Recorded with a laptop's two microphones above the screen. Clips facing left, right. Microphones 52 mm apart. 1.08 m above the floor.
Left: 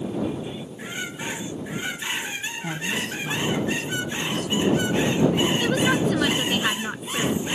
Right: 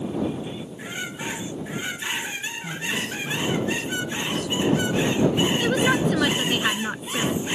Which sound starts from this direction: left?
A woman speaking, at 2.6 s.